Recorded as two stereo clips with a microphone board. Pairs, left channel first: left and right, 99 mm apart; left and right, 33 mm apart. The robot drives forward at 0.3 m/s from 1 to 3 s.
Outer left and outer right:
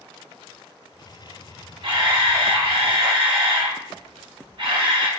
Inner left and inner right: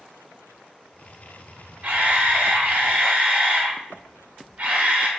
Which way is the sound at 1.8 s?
55° right (ahead or behind).